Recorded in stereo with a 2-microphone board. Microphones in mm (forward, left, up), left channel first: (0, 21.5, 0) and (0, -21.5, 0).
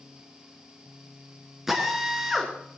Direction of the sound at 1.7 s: 5° right (ahead or behind).